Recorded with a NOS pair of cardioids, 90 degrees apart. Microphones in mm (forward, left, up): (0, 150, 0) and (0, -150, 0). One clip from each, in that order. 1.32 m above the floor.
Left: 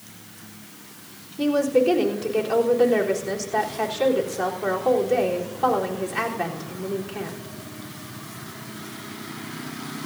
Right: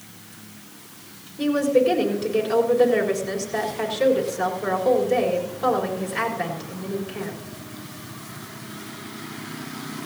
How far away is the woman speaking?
About 3.5 m.